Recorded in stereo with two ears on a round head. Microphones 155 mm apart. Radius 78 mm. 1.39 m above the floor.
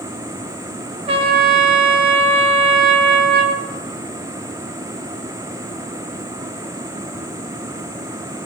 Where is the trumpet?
30° right (ahead or behind), 0.6 m.